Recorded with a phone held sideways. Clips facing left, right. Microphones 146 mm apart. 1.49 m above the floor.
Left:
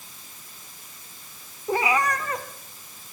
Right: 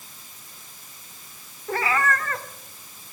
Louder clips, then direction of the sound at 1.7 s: Left 1 dB; 15° left (ahead or behind).